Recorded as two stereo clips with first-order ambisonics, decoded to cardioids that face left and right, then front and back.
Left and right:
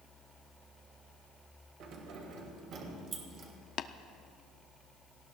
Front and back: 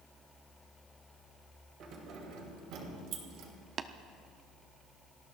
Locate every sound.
1.8 s keys jangling: 130° right, 2.5 m; by 3.5 s 155° right, 3 m
3.8 s tapping: 125° left, 0.5 m